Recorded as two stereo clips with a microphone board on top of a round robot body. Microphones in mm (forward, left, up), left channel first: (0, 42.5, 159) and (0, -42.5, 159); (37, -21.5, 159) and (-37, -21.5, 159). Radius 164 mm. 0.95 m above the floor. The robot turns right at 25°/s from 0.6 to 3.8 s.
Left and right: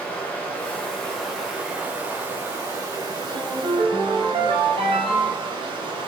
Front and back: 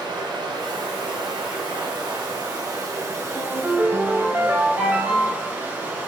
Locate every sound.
0.0 s running water: 165° left, 3 m; by 6.1 s 115° right, 3 m
3.3 s a ringtone: 120° right, 2 m; by 5.5 s 110° right, 2 m